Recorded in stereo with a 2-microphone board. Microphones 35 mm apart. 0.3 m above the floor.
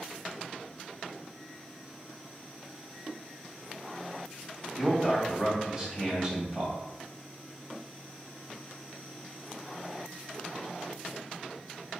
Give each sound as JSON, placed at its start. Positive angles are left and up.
{"t": 4.8, "sound": "a man speaking", "side_deg": -25, "distance_m": 1.6}